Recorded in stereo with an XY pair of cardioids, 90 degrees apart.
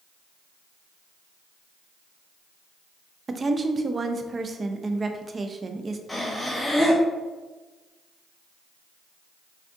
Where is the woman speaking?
35° right, 0.5 m.